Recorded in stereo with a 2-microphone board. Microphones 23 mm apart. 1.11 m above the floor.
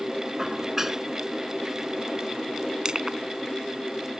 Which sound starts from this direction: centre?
Dishes clattering, at 0.4 s.